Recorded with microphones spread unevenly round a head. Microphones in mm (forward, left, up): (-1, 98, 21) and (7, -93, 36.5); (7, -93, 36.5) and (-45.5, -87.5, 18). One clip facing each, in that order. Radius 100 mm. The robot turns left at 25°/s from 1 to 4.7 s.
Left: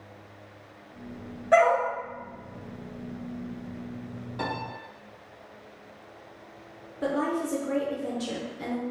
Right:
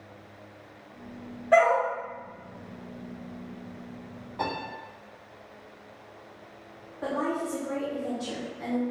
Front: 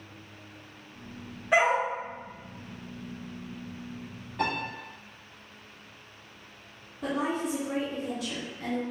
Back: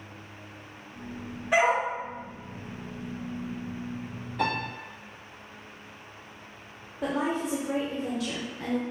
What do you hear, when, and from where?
1.5 s a dog barking: 20° left, 1.8 m; by 1.8 s 10° left, 1.8 m
4.4 s a piano: 35° left, 1.2 m; by 4.6 s 30° left, 1.2 m
7.0 s a woman speaking: 140° left, 0.7 m